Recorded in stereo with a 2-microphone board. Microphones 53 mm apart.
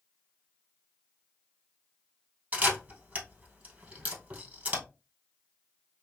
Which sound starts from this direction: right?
A camera shutter, at 2.5 s.